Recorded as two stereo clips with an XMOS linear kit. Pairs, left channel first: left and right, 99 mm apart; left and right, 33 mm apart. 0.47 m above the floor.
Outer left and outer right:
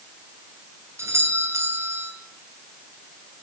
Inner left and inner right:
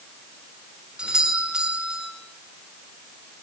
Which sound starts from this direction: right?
A doorbell, at 1.0 s.